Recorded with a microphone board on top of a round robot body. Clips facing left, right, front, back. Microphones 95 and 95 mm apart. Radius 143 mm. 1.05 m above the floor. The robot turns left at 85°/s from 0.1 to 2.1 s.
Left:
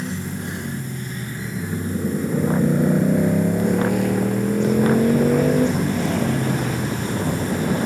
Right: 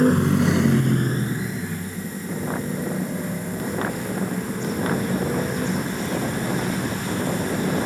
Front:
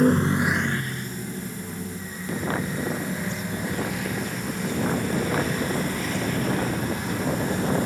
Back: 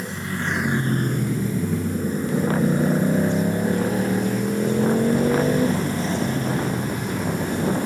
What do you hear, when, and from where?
0.0 s a motorcycle: 45° right; by 7.9 s 115° left